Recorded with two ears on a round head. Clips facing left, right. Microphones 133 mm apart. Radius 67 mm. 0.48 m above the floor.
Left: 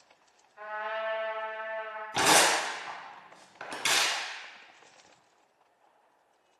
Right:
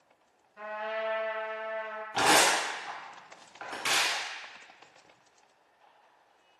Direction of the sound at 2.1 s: 45° left (ahead or behind).